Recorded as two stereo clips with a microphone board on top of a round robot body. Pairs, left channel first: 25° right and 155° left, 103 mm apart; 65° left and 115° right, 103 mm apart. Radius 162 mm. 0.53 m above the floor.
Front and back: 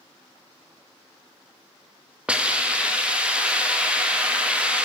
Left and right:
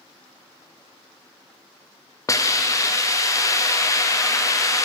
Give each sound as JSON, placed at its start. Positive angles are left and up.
{"t": 2.3, "sound": "a hiss", "azimuth_deg": 85, "distance_m": 1.0}